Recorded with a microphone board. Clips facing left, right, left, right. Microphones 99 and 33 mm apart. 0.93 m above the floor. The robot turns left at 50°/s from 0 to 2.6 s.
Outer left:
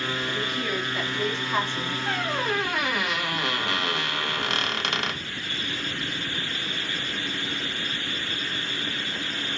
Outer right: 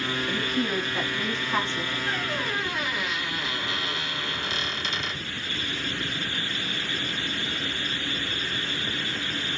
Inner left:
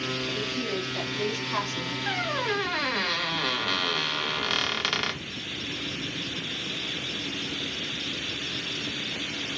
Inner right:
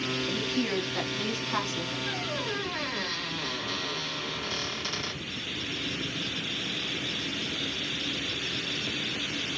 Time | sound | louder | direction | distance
0.3 | a woman speaking | outer right 2 dB, inner right 1 dB | 125° right | 1.9 m
2.1 | a squeak | outer left 6 dB, inner left 4 dB | 80° left | 0.6 m